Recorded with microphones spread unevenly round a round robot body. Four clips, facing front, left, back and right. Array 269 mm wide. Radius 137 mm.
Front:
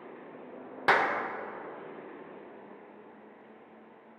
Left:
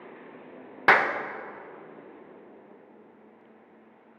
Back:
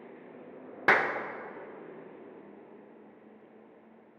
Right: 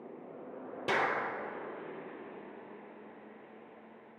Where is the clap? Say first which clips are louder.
Left 10 dB, front 1 dB; 105° left, 0.5 m.